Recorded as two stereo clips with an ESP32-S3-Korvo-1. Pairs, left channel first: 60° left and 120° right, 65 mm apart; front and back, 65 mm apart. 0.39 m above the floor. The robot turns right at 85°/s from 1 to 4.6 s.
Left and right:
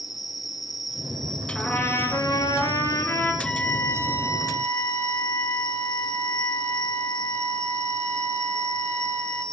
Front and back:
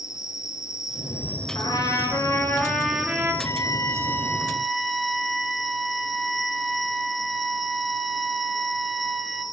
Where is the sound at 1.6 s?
20° right, 4 m; by 3.3 s 130° left, 4 m.